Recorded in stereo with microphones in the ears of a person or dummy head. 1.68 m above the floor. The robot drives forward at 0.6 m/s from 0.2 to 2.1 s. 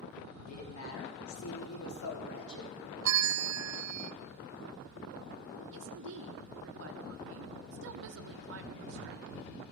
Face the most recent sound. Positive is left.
turn(degrees=-60)  # may be behind; listen again after turning